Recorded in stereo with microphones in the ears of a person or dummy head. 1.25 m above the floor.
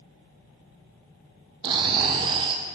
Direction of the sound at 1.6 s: 30° right (ahead or behind).